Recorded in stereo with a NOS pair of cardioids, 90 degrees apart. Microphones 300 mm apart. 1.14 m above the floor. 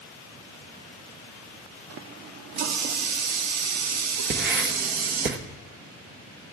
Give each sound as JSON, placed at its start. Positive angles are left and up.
{"t": 1.9, "sound": "a running tap", "azimuth_deg": -60, "distance_m": 1.2}
{"t": 4.3, "sound": "writing", "azimuth_deg": -35, "distance_m": 1.6}